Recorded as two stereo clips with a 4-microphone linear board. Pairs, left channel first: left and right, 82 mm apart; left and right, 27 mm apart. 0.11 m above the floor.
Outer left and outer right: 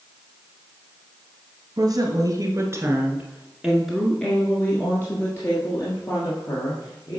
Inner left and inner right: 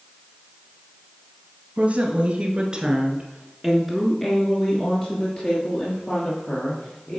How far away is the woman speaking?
About 1.7 m.